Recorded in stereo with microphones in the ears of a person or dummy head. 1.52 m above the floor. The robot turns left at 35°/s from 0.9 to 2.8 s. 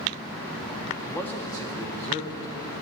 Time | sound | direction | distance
1.0 | a man speaking | 175° right | 1.2 m